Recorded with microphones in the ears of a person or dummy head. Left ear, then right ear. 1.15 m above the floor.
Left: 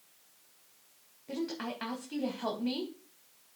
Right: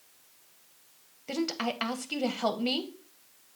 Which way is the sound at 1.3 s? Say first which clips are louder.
Right 6 dB; 60° right (ahead or behind).